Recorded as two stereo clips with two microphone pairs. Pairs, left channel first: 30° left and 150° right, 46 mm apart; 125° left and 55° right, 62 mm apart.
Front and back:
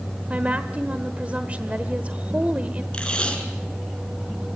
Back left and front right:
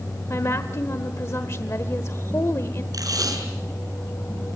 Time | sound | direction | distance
0.3 | a woman speaking | 155° left | 1.2 m
2.9 | tape being pulled | 45° right | 5 m